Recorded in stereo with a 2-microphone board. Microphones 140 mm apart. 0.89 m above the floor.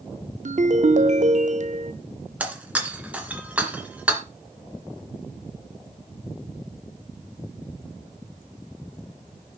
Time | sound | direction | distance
0.5 | a ringtone | 60° right (ahead or behind) | 0.7 m
2.4 | breaking glass | 10° right (ahead or behind) | 2.5 m